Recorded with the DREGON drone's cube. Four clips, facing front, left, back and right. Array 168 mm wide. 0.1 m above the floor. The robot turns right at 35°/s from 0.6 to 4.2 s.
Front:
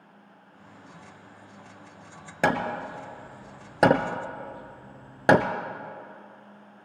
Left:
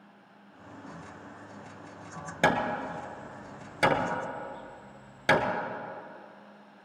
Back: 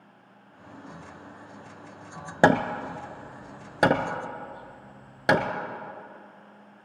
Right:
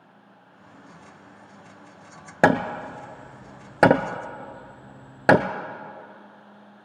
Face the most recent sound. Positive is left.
turn(degrees=-65)